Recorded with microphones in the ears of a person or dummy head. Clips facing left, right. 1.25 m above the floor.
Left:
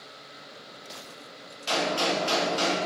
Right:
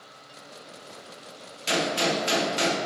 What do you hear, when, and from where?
1.7 s a gunshot: 30° right (ahead or behind), 0.9 m